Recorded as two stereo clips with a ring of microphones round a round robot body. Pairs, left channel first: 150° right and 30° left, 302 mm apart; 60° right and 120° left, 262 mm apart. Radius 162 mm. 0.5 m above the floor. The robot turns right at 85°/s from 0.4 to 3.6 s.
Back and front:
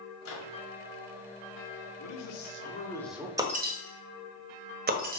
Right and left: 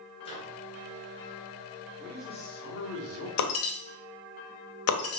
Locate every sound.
0.2 s a microwave: 125° right, 1.8 m; by 0.6 s 110° right, 1.8 m
2.0 s a man speaking: 155° right, 1.4 m; by 3.3 s 45° right, 1.4 m
3.4 s breaking glass: 50° right, 1.3 m; by 5.2 s 30° right, 1.3 m